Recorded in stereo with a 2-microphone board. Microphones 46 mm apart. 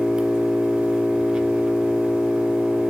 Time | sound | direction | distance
0.0 | an engine running | 15° right (ahead or behind) | 1.8 m